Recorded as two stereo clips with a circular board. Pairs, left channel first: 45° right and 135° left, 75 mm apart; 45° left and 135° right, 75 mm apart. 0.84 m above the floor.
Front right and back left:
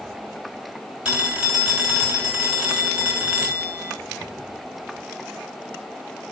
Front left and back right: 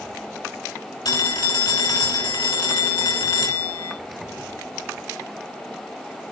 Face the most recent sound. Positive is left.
turn(degrees=60)